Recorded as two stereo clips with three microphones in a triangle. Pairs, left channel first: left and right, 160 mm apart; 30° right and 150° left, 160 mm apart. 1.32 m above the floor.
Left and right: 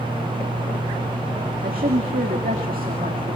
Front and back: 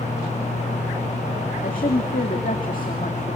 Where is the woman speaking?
60° right, 2 m.